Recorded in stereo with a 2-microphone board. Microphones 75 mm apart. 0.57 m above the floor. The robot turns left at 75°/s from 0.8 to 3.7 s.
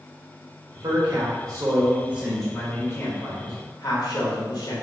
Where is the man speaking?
60° right, 1.7 m; by 4.8 s 80° left, 1.7 m.